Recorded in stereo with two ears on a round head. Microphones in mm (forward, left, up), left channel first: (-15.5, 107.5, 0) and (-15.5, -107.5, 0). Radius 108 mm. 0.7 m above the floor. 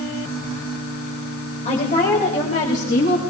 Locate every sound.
1.6 s a woman speaking: 30° left (ahead or behind), 3.5 m; by 3.2 s 35° left (ahead or behind), 5 m